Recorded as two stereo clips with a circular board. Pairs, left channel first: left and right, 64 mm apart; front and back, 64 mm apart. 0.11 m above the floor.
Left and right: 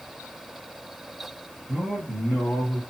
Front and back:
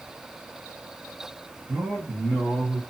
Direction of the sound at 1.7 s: 170° right.